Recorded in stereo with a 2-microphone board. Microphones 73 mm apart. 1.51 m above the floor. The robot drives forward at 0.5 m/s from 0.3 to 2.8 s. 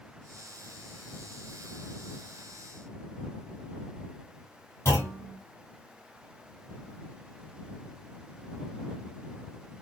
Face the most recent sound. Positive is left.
turn(degrees=35)  # may be behind; listen again after turning